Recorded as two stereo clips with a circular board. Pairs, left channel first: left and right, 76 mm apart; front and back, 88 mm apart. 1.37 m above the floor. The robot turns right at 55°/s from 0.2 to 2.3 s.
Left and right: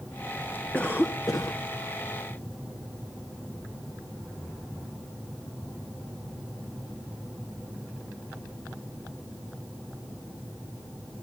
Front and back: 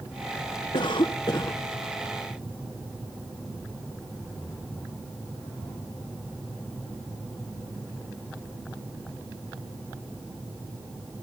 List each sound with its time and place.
0.7 s a cough: 15° left, 1.4 m; by 1.6 s 65° left, 1.4 m